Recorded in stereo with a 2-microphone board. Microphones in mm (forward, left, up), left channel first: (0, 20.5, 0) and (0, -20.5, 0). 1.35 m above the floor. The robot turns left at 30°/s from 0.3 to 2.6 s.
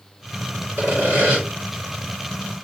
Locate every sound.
0.8 s sawing: 60° right (ahead or behind), 2 m; by 1.4 s 40° right (ahead or behind), 2 m